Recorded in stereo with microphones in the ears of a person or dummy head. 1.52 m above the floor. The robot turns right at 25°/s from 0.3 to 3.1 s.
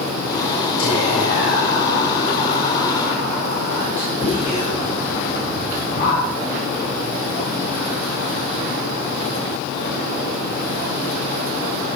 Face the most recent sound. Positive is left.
turn(degrees=160)